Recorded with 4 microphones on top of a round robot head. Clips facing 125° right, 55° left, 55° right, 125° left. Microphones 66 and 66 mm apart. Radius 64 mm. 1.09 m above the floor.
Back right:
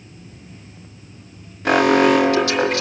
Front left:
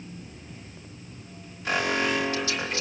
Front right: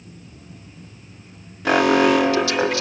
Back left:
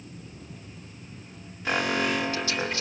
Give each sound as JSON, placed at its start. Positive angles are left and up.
{"t": 1.6, "sound": "an alarm", "azimuth_deg": -80, "distance_m": 1.2}